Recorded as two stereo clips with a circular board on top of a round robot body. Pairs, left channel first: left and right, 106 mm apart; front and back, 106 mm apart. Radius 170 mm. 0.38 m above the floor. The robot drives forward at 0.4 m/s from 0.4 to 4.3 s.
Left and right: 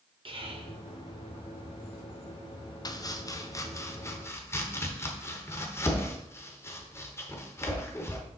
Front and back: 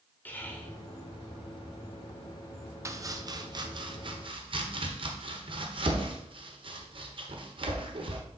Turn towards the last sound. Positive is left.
turn(degrees=155)